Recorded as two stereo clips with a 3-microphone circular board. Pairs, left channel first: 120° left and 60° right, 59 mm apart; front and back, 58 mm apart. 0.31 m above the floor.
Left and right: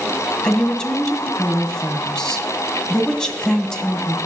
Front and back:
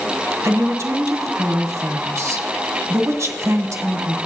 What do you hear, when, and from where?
0.4 s a woman speaking: 165° right, 1.8 m